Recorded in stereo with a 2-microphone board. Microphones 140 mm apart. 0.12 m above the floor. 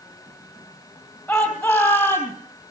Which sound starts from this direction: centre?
A shout, at 1.3 s.